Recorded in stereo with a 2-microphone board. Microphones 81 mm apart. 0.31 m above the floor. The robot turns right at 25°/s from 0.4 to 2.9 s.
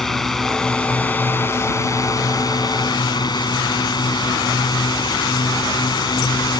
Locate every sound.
0.0 s a drone: 5° left; by 6.6 s 65° left